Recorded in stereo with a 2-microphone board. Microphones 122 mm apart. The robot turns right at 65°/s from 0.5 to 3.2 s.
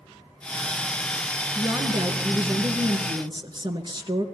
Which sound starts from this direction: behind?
A woman speaking, at 1.6 s.